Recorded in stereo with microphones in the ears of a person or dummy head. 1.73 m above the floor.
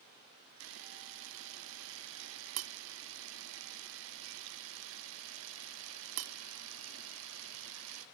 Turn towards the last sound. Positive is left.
turn(degrees=-70)  # may be behind; listen again after turning